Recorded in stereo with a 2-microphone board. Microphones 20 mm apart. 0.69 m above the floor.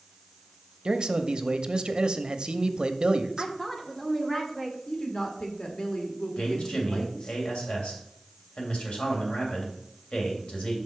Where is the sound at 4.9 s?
40° left (ahead or behind), 1.6 m.